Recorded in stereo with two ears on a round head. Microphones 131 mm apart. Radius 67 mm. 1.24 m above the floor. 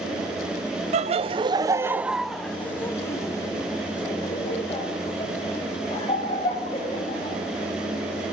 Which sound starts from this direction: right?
Laughter, at 0.9 s.